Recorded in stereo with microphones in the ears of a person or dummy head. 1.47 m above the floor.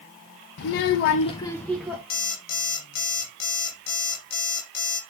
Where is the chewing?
No chewing in this recording.